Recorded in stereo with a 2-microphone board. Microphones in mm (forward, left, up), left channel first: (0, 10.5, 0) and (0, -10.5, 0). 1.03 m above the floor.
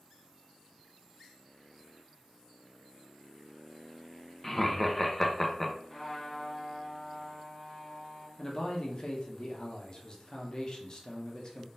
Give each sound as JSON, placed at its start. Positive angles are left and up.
{"t": 4.4, "sound": "laughter", "side_deg": 15, "distance_m": 0.6}
{"t": 5.9, "sound": "a trumpet", "side_deg": 20, "distance_m": 1.5}
{"t": 8.4, "sound": "a man speaking", "side_deg": 40, "distance_m": 1.0}